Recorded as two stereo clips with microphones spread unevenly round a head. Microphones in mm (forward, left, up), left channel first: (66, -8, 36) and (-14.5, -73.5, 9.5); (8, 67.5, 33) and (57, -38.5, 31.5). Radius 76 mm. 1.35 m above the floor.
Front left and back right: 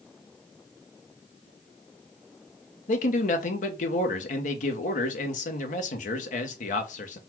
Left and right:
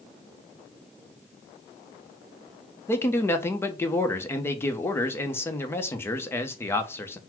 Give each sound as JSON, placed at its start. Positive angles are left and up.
{"t": 2.9, "sound": "a man speaking", "azimuth_deg": 45, "distance_m": 1.0}